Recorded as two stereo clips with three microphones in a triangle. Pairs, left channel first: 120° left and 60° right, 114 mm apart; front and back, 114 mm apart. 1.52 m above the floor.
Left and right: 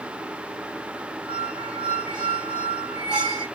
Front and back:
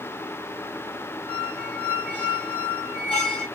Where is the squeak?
20° left, 3 m.